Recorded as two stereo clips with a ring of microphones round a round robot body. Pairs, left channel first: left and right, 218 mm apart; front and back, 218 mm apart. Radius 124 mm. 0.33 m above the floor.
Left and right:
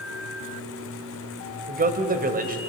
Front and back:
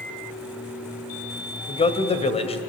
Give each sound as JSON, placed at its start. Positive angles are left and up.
{"t": 1.7, "sound": "a man speaking", "azimuth_deg": -55, "distance_m": 2.5}